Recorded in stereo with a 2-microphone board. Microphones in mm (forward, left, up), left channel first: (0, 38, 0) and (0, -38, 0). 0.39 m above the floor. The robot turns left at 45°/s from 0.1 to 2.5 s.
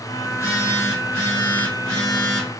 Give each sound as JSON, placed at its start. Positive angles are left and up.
{"t": 0.3, "sound": "a phone buzzing", "azimuth_deg": 100, "distance_m": 1.7}